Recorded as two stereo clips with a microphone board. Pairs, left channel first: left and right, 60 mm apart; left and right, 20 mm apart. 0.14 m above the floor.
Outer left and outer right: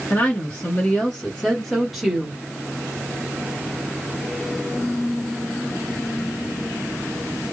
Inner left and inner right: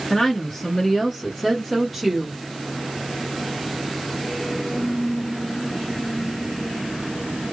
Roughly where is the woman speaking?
Left.